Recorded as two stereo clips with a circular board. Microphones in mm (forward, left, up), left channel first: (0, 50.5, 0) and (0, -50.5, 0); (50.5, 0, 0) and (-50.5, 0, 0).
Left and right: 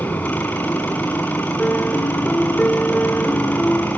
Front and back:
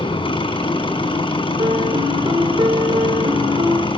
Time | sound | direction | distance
0.0 | an engine running | 15° left | 5 m
1.6 | a piano | 170° left | 2.5 m